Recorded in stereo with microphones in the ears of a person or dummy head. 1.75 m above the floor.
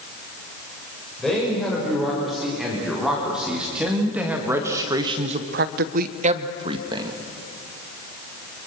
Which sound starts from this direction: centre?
A man speaking, at 1.2 s.